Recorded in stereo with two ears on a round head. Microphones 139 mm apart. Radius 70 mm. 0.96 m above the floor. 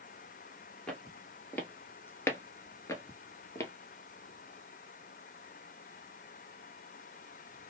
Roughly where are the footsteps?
Centre.